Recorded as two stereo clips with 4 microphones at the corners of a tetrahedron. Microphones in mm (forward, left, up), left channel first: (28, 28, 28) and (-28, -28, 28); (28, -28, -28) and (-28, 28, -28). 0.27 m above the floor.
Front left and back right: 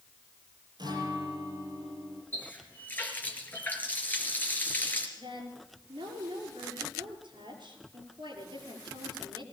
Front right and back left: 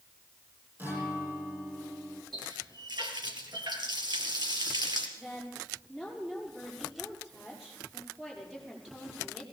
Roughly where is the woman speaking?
Behind right.